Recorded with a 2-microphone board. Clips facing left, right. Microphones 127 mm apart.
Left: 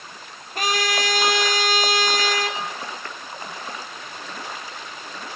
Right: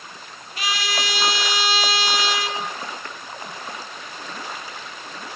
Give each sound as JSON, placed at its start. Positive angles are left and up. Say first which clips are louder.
{"t": 0.6, "sound": "a trumpet", "louder": "left 4 dB", "side_deg": 50, "distance_m": 2.5}